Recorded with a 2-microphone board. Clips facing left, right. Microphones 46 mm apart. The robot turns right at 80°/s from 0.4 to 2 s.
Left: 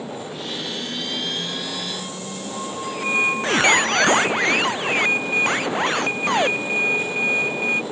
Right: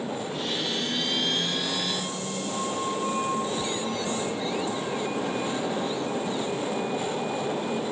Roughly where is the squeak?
Left.